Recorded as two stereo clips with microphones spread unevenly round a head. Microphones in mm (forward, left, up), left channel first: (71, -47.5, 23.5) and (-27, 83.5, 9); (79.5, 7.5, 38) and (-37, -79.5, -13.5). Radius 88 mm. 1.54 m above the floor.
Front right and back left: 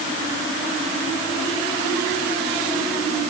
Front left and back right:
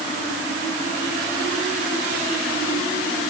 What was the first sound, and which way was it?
Only background noise.